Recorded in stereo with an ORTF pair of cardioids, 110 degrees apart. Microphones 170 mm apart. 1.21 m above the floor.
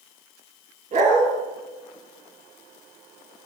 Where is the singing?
No singing in this recording.